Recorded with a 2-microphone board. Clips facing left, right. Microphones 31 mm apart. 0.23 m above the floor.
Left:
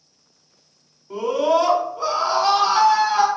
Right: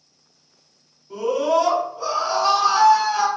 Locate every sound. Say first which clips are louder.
1.1 s a scream: left 1 dB; 25° left (ahead or behind), 1.0 m